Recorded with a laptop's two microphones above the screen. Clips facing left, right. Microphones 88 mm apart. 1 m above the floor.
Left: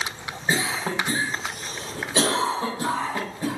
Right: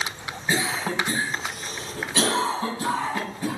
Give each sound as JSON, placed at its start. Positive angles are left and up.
{"t": 0.5, "sound": "a cough", "side_deg": 30, "distance_m": 3.5}